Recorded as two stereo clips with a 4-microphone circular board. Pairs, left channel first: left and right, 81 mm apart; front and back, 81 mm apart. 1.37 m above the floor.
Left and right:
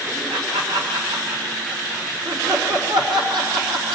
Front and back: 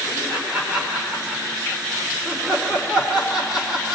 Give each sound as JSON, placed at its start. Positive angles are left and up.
{"t": 0.3, "sound": "laughter", "azimuth_deg": -100, "distance_m": 5.5}